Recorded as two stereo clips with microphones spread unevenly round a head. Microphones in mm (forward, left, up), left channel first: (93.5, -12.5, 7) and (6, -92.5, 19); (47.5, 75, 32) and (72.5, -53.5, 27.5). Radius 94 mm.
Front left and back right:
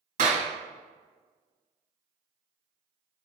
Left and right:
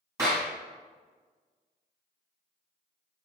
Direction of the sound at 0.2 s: 155° right.